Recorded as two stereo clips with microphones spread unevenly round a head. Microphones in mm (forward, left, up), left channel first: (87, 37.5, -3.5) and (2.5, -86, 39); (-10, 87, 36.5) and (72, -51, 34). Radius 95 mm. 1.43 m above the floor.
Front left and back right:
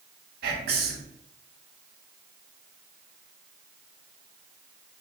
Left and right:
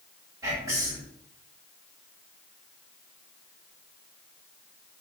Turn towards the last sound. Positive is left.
turn(degrees=-135)